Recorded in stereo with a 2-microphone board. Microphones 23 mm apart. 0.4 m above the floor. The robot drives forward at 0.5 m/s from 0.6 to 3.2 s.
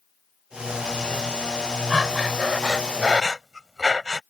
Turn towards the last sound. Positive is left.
turn(degrees=-20)  # may be behind; listen again after turning